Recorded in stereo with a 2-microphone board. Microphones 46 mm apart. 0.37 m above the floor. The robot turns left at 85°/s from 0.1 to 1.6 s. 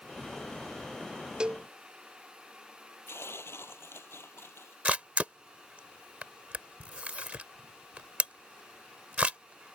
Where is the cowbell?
20° right (ahead or behind); by 1.7 s 35° right (ahead or behind).